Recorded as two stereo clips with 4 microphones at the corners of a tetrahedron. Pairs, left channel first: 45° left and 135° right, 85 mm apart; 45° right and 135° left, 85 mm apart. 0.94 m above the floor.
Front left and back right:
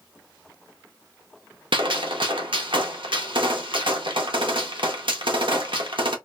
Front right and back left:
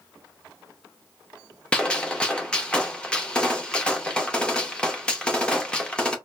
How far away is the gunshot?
About 0.7 m.